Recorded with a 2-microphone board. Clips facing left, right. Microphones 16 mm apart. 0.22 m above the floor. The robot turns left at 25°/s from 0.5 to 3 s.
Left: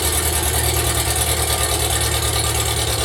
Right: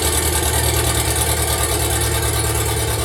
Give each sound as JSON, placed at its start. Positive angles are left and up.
{"t": 0.0, "sound": "an engine running", "azimuth_deg": -160, "distance_m": 1.6}